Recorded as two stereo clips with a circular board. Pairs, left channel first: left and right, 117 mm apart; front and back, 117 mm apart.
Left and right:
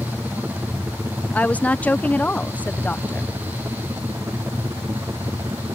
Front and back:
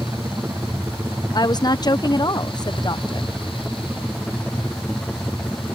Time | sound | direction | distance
0.0 | a helicopter | 145° right | ?
1.3 | a woman speaking | 20° left | ?